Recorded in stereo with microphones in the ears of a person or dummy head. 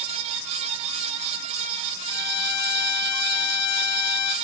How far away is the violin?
About 1.1 m.